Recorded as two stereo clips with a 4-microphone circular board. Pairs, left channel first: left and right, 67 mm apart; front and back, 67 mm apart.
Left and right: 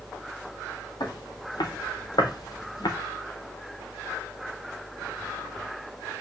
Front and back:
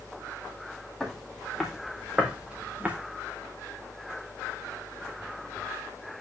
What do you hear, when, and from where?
1.0 s footsteps: 90° left, 3.5 m; by 3.0 s 110° left, 2.5 m